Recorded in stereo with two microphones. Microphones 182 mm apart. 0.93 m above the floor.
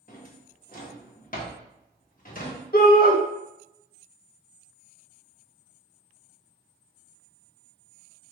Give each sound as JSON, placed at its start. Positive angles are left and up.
{"t": 0.1, "sound": "a drawer", "side_deg": 50, "distance_m": 0.7}
{"t": 2.7, "sound": "a shout", "side_deg": 55, "distance_m": 0.8}